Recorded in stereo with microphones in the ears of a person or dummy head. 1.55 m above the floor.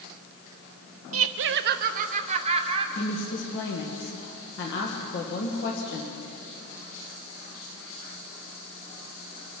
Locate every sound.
1.1 s laughter: 70° right (ahead or behind), 0.5 m; by 2.9 s 35° right (ahead or behind), 1.5 m
3.0 s a woman speaking: 60° left (ahead or behind), 1.7 m